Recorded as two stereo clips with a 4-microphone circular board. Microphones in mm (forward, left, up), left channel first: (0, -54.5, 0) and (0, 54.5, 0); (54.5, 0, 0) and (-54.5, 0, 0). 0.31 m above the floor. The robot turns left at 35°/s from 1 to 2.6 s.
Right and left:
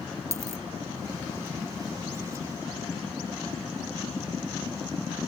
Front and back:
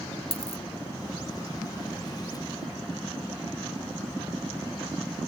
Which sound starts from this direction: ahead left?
A dropped coin, at 0.3 s.